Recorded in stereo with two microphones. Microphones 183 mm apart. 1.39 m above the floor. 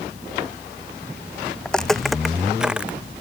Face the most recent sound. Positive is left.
turn(degrees=-5)  # may be behind; listen again after turning